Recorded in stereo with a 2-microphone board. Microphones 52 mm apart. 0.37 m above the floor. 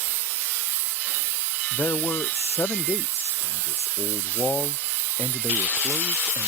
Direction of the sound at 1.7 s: 55° left (ahead or behind).